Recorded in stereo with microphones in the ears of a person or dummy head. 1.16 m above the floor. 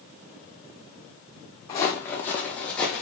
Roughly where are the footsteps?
Left.